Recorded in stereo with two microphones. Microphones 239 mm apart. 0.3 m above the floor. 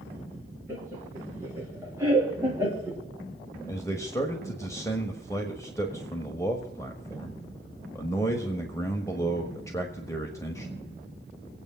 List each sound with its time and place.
0.7 s laughter: 10° right (ahead or behind), 4.5 m
3.7 s a man speaking: 10° left (ahead or behind), 1.3 m